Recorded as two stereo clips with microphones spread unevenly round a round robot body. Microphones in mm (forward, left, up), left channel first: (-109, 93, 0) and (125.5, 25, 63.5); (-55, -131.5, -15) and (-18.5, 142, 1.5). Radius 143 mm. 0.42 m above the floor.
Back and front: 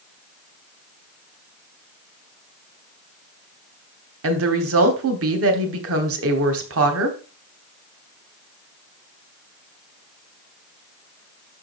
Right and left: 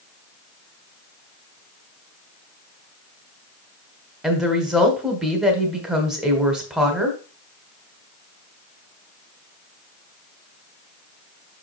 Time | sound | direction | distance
4.2 | a woman speaking | 10° right | 1.3 m